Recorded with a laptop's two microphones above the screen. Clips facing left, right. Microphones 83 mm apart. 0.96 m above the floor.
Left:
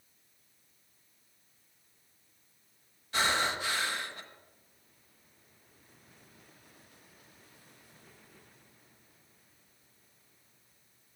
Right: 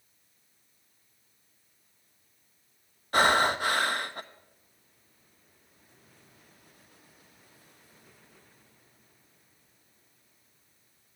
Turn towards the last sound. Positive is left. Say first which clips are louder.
# right 7 dB
turn(degrees=-55)  # may be behind; listen again after turning